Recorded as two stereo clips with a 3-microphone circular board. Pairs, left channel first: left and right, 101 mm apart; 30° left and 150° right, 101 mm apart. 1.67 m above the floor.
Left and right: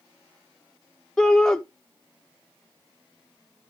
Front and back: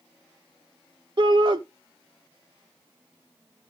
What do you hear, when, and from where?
1.2 s a shout: 175° left, 0.6 m